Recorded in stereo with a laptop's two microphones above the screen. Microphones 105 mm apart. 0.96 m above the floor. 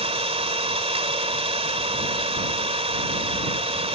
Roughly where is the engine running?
Right.